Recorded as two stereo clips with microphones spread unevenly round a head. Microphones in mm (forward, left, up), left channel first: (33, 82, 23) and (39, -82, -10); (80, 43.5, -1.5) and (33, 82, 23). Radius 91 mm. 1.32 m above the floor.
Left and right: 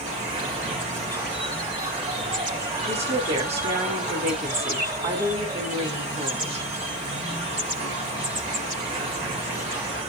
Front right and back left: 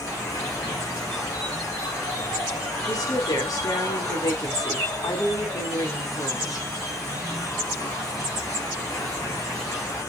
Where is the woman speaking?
35° right, 4 m.